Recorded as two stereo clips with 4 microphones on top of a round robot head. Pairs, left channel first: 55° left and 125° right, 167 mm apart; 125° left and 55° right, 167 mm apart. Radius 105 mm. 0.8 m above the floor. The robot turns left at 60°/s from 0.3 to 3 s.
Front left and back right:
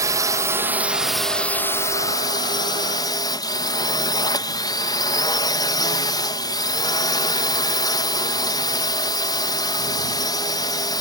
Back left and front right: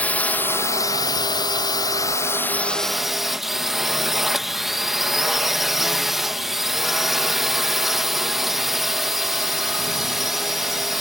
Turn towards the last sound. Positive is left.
turn(degrees=35)